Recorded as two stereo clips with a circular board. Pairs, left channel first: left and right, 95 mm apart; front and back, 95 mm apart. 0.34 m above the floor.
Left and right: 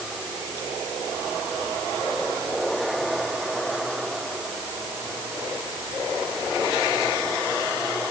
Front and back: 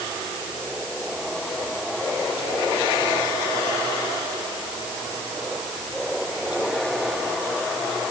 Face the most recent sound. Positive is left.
No sound to turn to.